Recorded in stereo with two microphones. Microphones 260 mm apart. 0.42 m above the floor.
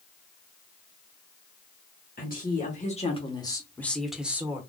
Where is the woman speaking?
35° left (ahead or behind), 1.3 m; by 4.6 s 10° right (ahead or behind), 1.2 m.